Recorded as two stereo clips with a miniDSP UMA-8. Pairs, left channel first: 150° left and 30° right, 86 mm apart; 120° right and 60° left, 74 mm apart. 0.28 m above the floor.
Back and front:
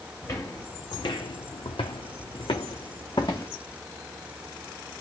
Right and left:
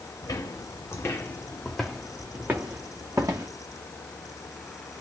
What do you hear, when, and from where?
0.2 s footsteps: 155° right, 1.4 m; by 3.5 s 105° left, 1.6 m